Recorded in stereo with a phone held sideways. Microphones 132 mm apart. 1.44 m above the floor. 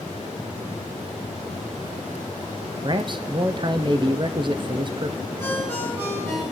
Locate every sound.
2.8 s a man speaking: 35° right (ahead or behind), 0.5 m
5.4 s a ringtone: 30° right (ahead or behind), 7.5 m